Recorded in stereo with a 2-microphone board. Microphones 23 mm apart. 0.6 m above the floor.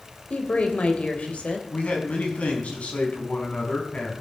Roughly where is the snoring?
No snoring in this recording.